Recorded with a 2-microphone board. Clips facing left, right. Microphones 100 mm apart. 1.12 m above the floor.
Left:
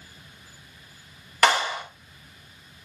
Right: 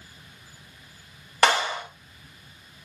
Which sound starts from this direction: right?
A clap, at 1.4 s.